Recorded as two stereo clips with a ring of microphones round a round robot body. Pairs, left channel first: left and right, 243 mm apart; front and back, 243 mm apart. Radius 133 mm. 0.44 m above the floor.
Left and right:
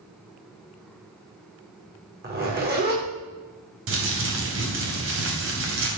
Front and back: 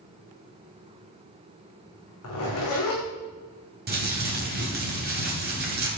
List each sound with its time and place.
2.2 s a zipper: 40° right, 7 m
3.9 s crumpling: 125° right, 3 m